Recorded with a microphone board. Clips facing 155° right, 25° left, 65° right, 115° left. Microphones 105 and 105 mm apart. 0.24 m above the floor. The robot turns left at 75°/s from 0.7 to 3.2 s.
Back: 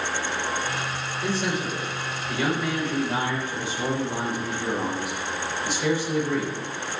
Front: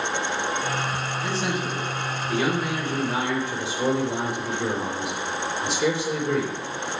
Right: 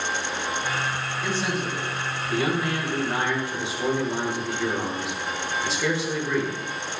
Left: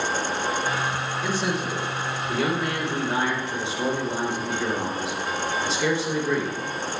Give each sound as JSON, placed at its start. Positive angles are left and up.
{"t": 1.2, "sound": "a man speaking", "azimuth_deg": 170, "distance_m": 3.5}